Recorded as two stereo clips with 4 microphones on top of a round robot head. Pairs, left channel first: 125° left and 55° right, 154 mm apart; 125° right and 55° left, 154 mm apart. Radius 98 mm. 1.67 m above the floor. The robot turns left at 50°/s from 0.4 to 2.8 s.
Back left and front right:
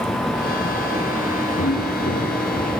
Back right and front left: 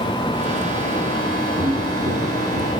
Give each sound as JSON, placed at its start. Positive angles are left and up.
{"t": 1.6, "sound": "footsteps", "azimuth_deg": 120, "distance_m": 6.5}